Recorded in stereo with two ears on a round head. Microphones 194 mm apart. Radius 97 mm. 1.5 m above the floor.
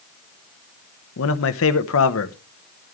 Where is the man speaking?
70° left (ahead or behind), 1.1 m.